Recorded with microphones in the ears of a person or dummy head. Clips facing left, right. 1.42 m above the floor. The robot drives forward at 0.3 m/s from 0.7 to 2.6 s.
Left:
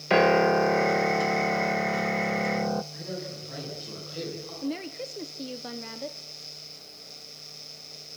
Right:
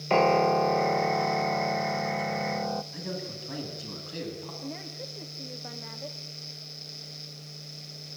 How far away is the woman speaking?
About 0.9 m.